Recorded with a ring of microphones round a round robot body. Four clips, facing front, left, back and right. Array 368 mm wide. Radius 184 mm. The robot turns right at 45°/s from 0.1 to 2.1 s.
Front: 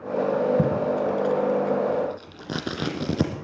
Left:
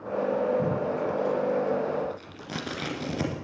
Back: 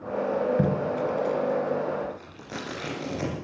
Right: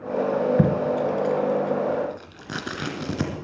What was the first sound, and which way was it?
Tape being pulled, 85° right.